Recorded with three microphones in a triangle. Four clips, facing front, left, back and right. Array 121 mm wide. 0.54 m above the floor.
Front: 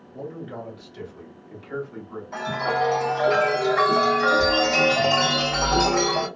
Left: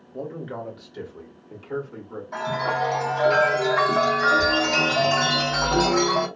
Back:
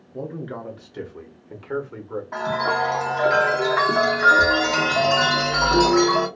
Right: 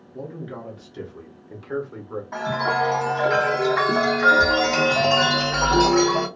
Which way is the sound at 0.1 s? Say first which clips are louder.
Left 2 dB, back 3 dB; 120° left.